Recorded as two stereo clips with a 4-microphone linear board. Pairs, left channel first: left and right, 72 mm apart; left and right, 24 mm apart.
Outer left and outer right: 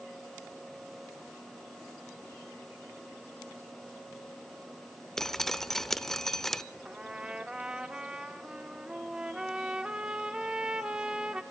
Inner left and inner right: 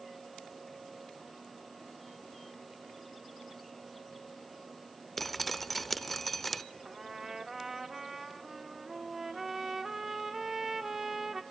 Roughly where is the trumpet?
Centre.